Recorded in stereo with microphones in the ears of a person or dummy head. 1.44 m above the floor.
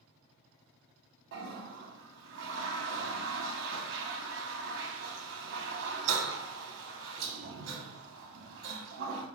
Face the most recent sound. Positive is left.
turn(degrees=-65)  # may be behind; listen again after turning